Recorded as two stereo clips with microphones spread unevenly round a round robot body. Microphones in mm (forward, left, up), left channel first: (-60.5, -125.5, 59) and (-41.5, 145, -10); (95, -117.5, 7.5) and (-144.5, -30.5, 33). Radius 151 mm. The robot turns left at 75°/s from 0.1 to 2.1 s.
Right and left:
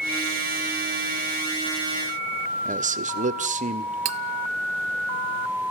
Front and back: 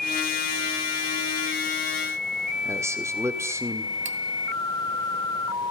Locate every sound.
2.6 s a man speaking: 80° left, 1.6 m
4.0 s cutlery clinking: 90° left, 1.0 m